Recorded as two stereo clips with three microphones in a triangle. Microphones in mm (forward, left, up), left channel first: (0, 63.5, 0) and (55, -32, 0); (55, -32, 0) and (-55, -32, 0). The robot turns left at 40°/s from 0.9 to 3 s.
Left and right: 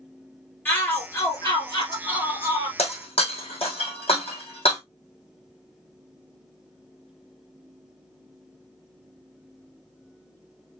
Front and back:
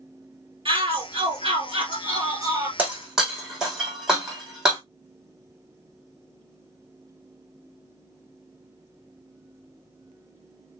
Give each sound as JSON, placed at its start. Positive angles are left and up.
{"t": 0.7, "sound": "a shout", "azimuth_deg": -170, "distance_m": 2.5}
{"t": 2.8, "sound": "breaking glass", "azimuth_deg": 100, "distance_m": 2.5}